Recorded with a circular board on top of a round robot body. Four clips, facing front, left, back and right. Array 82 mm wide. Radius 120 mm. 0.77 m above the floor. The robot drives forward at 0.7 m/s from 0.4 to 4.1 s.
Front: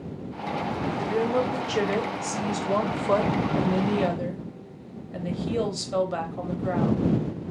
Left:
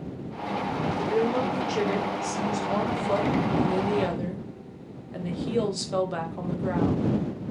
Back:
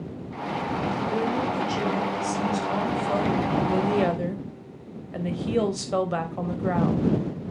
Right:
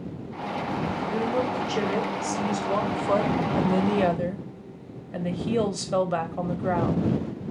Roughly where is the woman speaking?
Ahead.